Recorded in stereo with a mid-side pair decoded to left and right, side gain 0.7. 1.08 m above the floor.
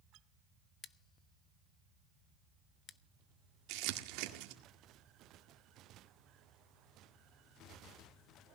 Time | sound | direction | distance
0.8 | scissors | 30° left | 0.8 m
3.7 | crumpling | 70° right | 1.9 m